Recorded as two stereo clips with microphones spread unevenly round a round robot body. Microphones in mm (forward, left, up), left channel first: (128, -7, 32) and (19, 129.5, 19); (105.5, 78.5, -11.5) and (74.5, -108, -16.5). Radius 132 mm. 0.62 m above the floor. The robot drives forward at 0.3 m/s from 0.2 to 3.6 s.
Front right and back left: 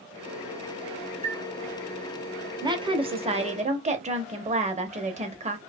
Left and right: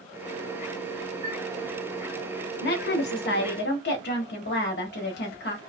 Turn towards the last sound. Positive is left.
turn(degrees=95)